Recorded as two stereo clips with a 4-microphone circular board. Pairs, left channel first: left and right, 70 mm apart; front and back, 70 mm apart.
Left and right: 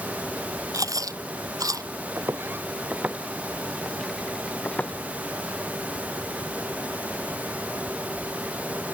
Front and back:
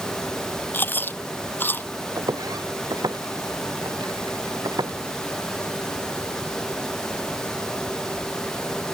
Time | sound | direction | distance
0.7 | chewing | 60° right | ?
2.2 | footsteps | 145° right | ?